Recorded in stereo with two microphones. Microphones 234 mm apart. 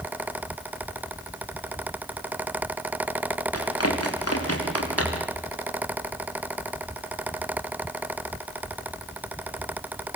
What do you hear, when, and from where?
3.5 s running footsteps: 85° left, 6.5 m; by 5.3 s 90° left, 7 m